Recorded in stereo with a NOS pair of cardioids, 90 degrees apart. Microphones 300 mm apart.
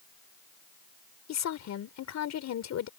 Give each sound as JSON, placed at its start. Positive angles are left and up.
{"t": 1.3, "sound": "a woman speaking", "azimuth_deg": 60}